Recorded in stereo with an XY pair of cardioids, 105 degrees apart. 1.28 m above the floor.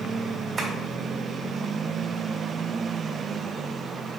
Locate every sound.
0.6 s tapping: 40° right, 3 m